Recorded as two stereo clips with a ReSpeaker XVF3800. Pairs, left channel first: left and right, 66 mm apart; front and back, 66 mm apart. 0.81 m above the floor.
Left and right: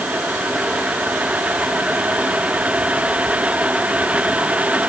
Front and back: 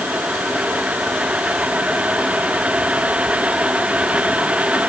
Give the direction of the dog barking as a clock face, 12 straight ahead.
I don't hear a dog barking.